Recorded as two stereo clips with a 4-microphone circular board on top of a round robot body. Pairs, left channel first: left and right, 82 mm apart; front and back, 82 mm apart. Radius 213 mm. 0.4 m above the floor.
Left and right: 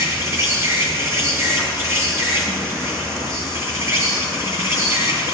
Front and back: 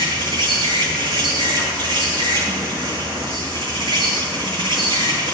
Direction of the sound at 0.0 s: 150° right.